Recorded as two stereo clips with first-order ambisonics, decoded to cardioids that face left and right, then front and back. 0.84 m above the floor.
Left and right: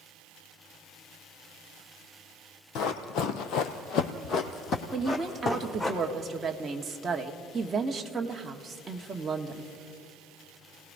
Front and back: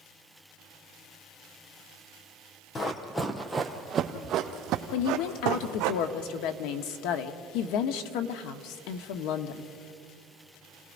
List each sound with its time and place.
2.8 s running footsteps: 65° left, 1.4 m; by 5.9 s 165° left, 2 m
4.9 s a woman speaking: 15° right, 1.3 m